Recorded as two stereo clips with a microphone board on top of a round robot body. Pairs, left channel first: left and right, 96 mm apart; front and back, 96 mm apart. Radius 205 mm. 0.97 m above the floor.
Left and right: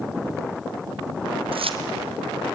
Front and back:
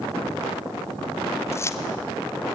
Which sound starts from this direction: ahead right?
Keys jangling, at 1.5 s.